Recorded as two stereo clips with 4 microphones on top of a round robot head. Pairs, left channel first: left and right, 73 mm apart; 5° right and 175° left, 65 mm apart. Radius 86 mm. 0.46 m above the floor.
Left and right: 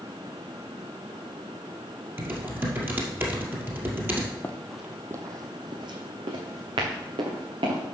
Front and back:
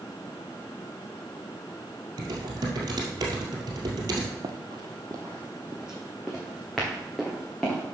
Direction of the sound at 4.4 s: 155° left.